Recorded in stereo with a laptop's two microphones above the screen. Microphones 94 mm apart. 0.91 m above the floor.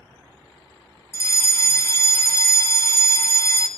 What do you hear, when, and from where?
1.1 s a fire alarm: 25° left (ahead or behind), 1.6 m